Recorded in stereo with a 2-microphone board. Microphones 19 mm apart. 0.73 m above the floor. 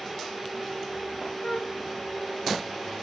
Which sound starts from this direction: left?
A flute, at 1.4 s.